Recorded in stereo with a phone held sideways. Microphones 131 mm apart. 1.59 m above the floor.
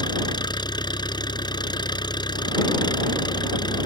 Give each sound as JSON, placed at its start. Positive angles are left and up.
{"t": 0.0, "sound": "an engine running", "side_deg": 35}